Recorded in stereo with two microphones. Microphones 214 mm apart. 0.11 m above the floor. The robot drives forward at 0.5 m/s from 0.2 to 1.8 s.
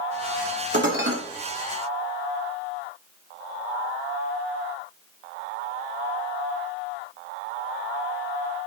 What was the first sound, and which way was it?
Dishes clattering, 60° right (ahead or behind).